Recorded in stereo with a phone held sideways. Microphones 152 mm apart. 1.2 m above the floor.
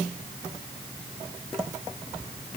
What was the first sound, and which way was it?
Only background noise.